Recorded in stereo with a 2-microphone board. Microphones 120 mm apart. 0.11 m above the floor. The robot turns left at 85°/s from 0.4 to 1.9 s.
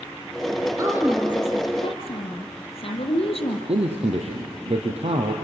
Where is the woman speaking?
145° right, 4 m; by 3.6 s 120° left, 4 m.